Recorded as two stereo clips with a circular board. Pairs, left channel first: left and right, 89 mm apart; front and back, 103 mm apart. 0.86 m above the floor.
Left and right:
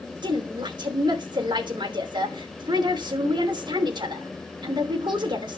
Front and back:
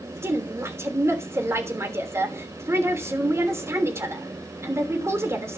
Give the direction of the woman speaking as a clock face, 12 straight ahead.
4 o'clock.